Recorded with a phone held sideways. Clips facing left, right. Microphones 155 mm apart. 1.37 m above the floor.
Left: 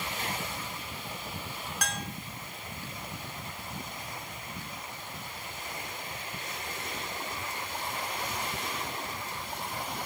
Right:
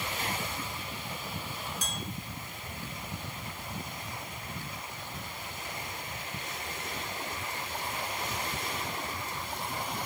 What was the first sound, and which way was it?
A bell, 75° left (ahead or behind).